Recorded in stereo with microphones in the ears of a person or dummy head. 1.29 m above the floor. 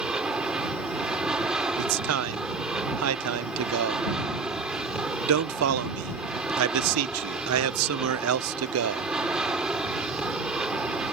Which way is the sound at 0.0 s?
10° right (ahead or behind).